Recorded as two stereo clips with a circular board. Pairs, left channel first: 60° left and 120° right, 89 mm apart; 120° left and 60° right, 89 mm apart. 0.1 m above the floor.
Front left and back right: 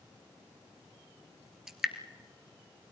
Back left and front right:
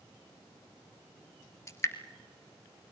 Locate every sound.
1.7 s dripping: 160° left, 1.5 m